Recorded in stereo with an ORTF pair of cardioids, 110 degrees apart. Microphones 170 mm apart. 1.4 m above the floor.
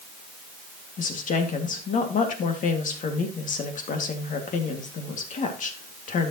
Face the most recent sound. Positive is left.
turn(degrees=50)